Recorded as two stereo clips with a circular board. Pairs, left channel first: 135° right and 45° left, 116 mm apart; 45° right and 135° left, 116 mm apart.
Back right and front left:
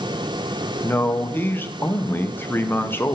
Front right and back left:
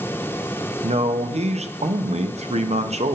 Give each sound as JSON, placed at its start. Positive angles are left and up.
{"t": 0.8, "sound": "a man speaking", "azimuth_deg": 155, "distance_m": 0.5}